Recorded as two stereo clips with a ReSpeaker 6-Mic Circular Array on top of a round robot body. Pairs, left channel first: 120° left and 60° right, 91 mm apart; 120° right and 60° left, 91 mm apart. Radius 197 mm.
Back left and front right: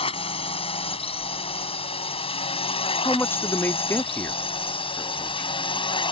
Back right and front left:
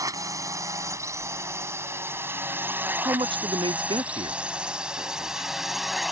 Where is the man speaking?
55° left.